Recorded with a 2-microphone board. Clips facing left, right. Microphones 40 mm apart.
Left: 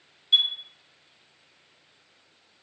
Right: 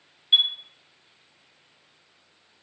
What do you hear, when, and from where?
0.3 s a chime: 30° right (ahead or behind), 0.5 m